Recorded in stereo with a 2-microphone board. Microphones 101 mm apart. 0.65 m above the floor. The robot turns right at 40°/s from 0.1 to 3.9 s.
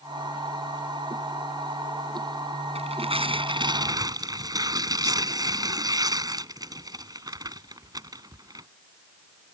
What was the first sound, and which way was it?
Tearing paper, 85° right.